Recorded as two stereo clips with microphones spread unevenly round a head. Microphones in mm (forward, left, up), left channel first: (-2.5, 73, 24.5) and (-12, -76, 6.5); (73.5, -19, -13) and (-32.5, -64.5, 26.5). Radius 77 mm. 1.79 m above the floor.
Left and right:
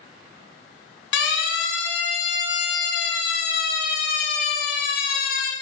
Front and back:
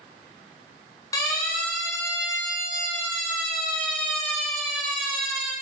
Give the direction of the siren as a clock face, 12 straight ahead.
9 o'clock.